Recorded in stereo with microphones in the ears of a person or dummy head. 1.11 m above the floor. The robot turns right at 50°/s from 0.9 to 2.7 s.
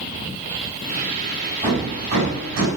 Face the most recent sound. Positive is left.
turn(degrees=-100)